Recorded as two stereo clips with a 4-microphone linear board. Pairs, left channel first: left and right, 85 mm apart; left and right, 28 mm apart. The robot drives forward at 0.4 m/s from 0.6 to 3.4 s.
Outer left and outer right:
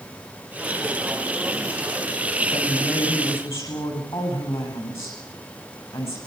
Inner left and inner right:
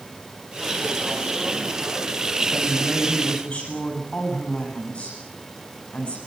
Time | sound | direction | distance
2.5 | a woman speaking | 35° left (ahead or behind) | 9 m